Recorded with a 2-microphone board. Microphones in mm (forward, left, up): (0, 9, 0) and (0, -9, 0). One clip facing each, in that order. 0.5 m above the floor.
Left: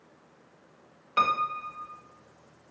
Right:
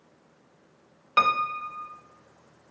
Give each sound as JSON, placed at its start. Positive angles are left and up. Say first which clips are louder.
{"t": 1.2, "sound": "a piano", "louder": "right 3 dB", "side_deg": -25, "distance_m": 1.0}